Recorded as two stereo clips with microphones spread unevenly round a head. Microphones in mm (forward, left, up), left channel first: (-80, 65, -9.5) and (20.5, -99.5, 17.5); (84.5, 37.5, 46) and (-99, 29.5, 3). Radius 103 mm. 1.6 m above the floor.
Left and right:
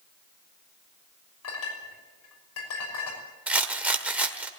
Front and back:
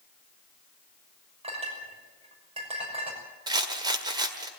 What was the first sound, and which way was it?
A clink, 120° left.